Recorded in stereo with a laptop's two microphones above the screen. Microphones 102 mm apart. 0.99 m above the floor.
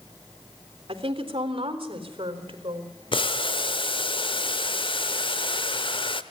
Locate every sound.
0.9 s a woman speaking: 60° right (ahead or behind), 3.5 m; by 2.9 s 55° right (ahead or behind), 4.5 m
3.1 s boiling: 55° left (ahead or behind), 1.0 m